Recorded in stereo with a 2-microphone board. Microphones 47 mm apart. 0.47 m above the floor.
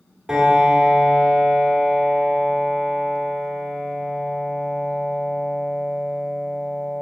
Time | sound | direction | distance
0.3 | a piano | 10° right (ahead or behind) | 1.3 m